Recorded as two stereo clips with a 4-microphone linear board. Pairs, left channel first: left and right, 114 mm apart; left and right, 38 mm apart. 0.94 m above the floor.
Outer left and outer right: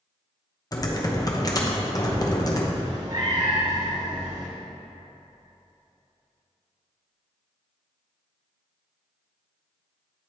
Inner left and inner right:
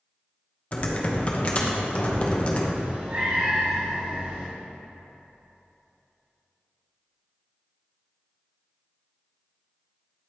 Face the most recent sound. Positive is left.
turn(degrees=-40)  # may be behind; listen again after turning